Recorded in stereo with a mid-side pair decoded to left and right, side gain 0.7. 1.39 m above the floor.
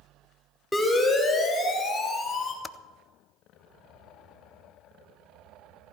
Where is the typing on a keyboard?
10° left, 0.5 m.